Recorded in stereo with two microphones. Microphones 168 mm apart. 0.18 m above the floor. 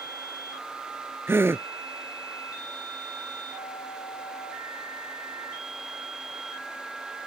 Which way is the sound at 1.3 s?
15° right (ahead or behind).